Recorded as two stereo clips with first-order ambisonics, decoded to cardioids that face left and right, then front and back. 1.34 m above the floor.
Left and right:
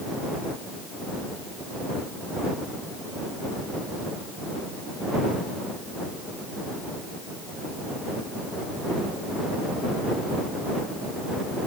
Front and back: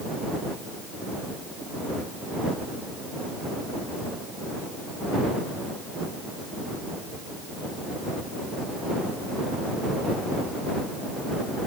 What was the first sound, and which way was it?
Only background noise.